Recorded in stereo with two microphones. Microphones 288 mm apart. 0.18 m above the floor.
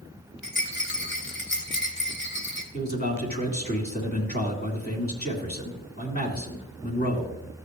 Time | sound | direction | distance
0.4 | a rattle | 40° left (ahead or behind) | 1.5 m
2.7 | a man speaking | 35° left (ahead or behind) | 2 m